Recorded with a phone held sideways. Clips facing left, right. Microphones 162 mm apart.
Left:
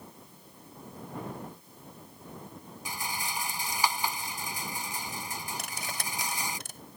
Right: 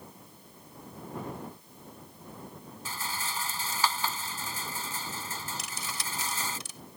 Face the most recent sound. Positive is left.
turn(degrees=55)  # may be behind; listen again after turning